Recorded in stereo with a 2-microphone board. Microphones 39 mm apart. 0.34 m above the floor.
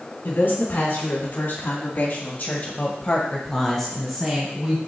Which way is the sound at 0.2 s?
65° left (ahead or behind).